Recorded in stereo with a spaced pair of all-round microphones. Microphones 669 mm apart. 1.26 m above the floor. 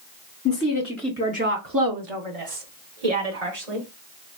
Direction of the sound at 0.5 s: 25° left (ahead or behind).